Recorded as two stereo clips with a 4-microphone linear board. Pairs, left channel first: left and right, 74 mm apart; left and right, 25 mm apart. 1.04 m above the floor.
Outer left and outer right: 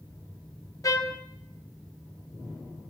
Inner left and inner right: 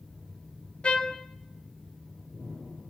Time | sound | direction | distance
0.8 | a trumpet | 50° left (ahead or behind) | 0.7 m